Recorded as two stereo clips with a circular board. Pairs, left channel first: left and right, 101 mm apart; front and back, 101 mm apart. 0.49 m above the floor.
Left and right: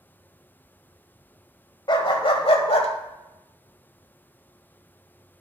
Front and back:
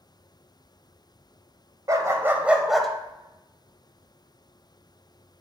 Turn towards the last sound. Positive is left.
turn(degrees=85)